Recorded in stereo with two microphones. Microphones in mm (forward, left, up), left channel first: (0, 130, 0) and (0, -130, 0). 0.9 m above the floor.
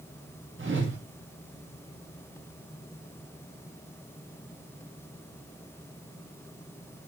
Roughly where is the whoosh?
Right.